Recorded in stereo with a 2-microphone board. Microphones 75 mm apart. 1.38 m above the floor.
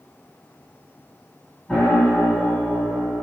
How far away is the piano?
About 1.4 m.